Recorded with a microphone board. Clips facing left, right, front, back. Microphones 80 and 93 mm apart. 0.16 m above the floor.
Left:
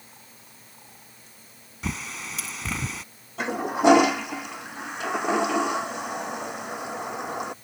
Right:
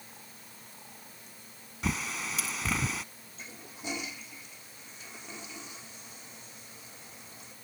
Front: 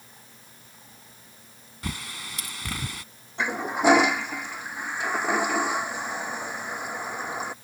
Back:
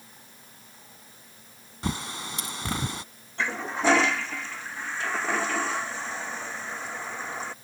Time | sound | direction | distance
1.8 | a bird | straight behind | ?
3.4 | a toilet flushing | 75° left | ?